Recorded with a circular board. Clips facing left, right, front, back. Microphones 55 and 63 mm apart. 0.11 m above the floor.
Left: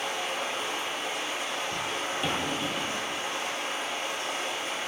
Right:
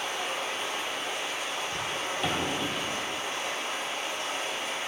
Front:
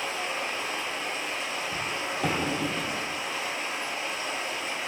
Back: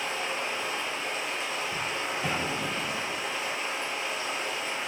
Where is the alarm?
No alarm in this recording.